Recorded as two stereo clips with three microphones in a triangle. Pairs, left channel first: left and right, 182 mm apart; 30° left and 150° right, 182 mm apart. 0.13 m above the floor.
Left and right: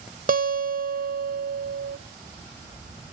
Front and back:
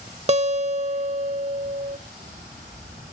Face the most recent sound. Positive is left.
turn(degrees=-105)